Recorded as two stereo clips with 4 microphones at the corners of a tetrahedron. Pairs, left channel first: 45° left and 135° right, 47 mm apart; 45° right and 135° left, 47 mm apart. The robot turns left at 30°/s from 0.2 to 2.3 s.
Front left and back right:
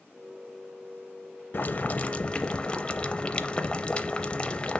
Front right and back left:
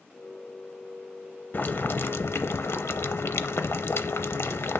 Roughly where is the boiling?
Ahead.